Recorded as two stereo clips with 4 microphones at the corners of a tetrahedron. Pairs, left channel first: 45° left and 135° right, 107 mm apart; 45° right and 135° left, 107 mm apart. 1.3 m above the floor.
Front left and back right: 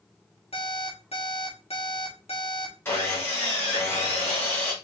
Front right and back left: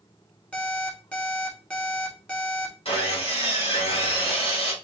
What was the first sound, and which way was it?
An alarm clock, 35° left.